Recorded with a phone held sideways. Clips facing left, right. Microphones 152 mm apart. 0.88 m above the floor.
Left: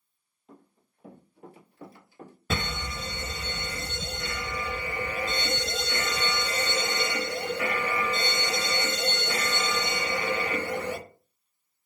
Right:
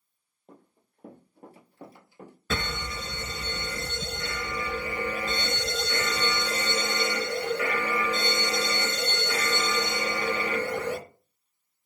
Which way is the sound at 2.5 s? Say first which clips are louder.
Even; 15° left (ahead or behind).